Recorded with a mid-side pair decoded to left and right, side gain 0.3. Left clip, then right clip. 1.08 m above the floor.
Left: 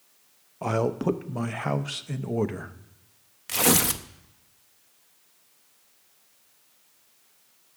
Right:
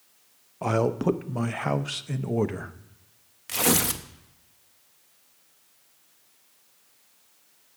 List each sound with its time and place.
0.6 s a man speaking: 10° right, 0.6 m
3.5 s tearing paper: 25° left, 0.6 m